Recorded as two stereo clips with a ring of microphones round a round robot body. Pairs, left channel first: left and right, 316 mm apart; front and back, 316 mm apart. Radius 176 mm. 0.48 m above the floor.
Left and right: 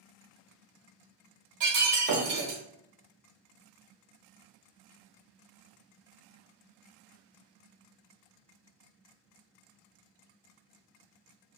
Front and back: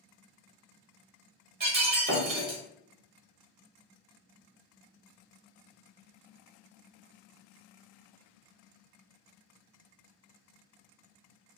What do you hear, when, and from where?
1.6 s breaking glass: 115° right, 1.1 m